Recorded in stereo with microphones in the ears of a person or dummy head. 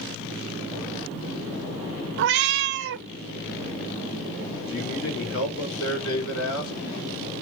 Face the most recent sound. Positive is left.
turn(degrees=80)